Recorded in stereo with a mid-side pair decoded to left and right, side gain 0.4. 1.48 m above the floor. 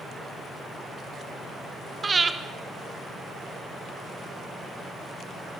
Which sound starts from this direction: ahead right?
Breathing, at 2.0 s.